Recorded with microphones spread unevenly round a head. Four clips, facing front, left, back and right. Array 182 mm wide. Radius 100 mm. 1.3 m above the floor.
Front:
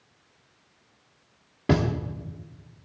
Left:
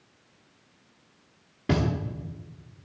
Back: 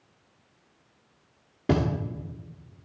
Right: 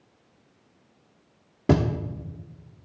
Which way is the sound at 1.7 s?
75° right.